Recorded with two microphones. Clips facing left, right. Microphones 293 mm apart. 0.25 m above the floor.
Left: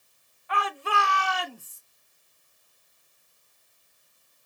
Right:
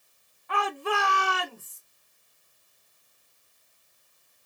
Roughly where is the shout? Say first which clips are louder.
Right 3 dB; right.